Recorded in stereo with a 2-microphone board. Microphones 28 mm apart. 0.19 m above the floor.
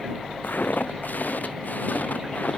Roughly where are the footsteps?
Left.